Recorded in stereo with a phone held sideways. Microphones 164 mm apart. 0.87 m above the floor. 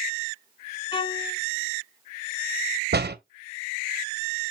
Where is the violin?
30° left (ahead or behind), 1.2 m.